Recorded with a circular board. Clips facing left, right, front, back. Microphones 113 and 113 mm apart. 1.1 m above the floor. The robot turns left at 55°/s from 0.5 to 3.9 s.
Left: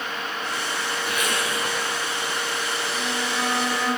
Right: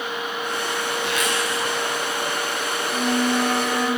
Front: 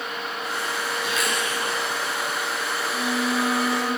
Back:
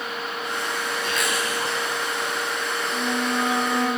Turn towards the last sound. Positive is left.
turn(degrees=-175)